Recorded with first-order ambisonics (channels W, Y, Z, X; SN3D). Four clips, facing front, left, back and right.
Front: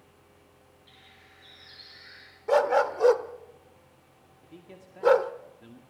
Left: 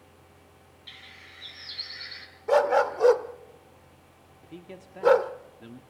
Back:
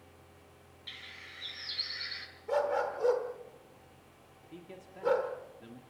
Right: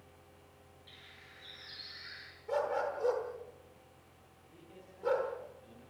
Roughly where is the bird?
Behind left.